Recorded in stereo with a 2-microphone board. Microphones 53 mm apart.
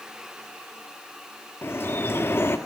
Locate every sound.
1.6 s dripping: 50° left (ahead or behind), 1.6 m